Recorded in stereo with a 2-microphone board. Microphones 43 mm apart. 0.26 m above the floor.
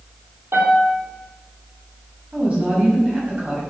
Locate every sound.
0.5 s a piano: 70° right (ahead or behind), 2.0 m
2.3 s a woman speaking: 30° right (ahead or behind), 1.9 m